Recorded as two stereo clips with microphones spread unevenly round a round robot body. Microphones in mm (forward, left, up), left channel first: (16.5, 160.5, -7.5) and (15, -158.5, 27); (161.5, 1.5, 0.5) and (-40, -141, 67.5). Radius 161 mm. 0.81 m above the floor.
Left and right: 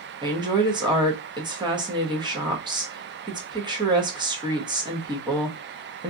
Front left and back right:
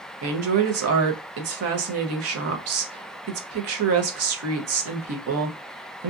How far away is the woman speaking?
About 0.7 m.